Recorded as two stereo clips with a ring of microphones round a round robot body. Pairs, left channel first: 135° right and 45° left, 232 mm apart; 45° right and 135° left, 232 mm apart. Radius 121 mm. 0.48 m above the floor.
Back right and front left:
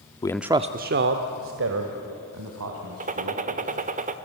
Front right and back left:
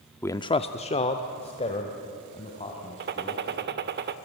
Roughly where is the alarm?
I don't hear an alarm.